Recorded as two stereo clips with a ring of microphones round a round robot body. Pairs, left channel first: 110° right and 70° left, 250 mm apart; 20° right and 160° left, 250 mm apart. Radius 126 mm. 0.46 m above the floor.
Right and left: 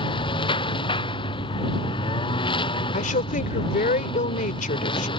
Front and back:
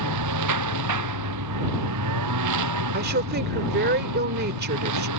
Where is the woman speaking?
165° right.